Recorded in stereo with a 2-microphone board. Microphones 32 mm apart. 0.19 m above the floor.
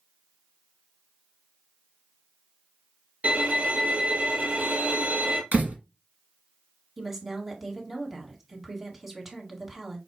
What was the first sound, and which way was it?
A violin, 55° right (ahead or behind).